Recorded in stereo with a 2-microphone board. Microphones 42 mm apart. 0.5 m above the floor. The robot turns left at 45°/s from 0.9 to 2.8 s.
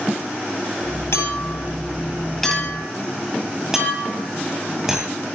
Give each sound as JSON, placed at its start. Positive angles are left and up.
{"t": 1.1, "sound": "a clink", "side_deg": 65, "distance_m": 9.0}